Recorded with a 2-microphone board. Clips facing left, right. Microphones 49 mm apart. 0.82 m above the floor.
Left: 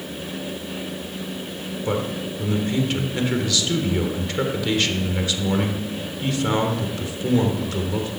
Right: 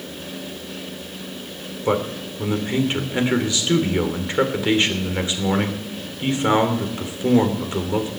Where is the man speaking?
25° right (ahead or behind), 3 m.